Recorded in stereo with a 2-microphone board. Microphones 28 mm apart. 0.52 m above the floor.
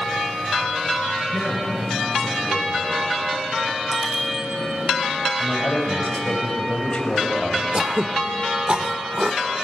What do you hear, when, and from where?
1.3 s a man speaking: 80° left, 6 m
3.9 s a bicycle bell: 5° left (ahead or behind), 5 m
5.4 s a man speaking: 50° left (ahead or behind), 3.5 m
7.7 s throat clearing: 45° right (ahead or behind), 0.7 m